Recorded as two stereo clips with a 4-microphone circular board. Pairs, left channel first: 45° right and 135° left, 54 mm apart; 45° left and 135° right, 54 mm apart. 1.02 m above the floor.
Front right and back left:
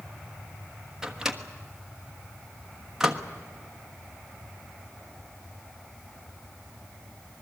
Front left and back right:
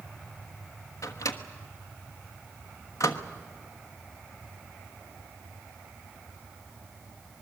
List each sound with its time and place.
1.0 s a microwave: 55° left, 1.3 m